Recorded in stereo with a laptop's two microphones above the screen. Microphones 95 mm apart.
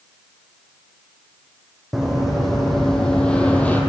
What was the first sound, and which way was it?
Running footsteps, centre (ahead or behind).